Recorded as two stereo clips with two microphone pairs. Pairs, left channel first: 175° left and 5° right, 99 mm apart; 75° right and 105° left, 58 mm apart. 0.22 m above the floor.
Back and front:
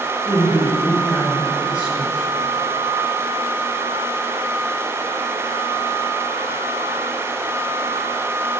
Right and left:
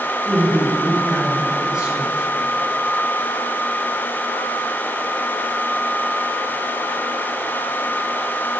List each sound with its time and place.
0.2 s a woman speaking: 60° left, 1.2 m